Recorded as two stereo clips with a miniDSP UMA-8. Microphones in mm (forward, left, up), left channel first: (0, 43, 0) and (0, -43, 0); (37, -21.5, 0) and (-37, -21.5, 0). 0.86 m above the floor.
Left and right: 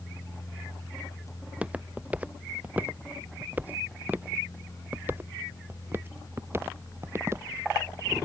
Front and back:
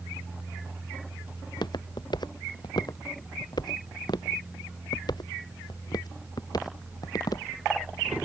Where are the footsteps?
15° right; by 7.5 s 30° right.